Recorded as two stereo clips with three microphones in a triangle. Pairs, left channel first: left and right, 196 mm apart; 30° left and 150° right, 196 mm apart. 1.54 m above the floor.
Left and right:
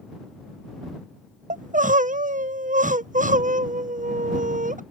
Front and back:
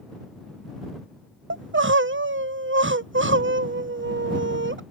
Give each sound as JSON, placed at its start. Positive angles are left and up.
{"t": 1.5, "sound": "crying", "azimuth_deg": -140}